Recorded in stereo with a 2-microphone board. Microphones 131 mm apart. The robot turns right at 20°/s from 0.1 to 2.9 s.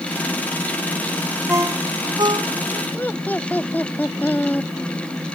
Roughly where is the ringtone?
Centre.